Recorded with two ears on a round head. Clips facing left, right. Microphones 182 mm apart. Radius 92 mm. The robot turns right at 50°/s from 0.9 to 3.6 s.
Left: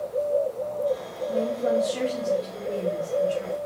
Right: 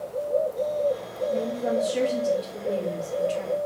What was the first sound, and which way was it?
A woman speaking, 155° left.